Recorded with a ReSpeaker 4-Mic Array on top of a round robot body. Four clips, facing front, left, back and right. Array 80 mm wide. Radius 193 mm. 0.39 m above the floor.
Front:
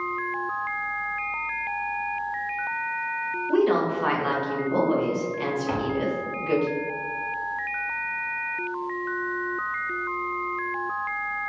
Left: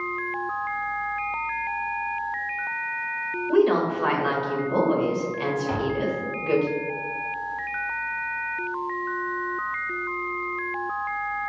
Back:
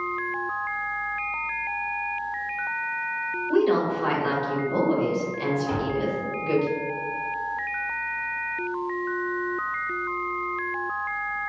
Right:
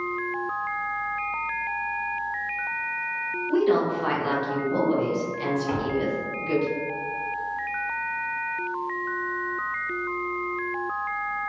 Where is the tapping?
5° right, 1.3 m.